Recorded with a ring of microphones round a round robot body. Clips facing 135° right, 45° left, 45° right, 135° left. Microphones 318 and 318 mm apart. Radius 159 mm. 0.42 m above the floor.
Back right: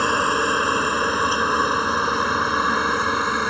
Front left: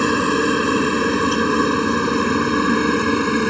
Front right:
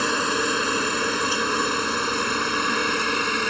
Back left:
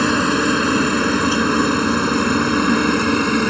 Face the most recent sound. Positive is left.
turn(degrees=100)